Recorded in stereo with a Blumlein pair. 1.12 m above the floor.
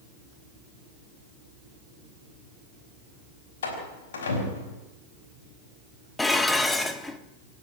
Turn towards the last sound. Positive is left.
turn(degrees=10)